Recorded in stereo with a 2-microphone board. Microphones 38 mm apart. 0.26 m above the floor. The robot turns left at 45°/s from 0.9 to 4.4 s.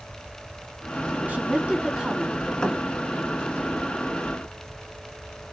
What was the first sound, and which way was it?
A woman speaking, 130° right.